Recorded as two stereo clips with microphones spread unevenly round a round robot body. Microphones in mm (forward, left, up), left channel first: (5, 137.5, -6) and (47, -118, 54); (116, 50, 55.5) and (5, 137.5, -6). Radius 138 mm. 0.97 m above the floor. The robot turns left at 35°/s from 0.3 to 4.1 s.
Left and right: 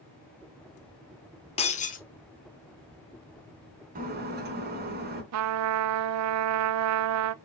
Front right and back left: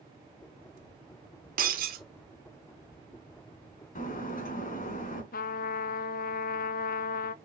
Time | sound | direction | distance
1.6 | breaking glass | 175° left | 1.1 m
4.0 | breaking glass | 25° right | 3 m
5.3 | a trumpet | 75° right | 0.6 m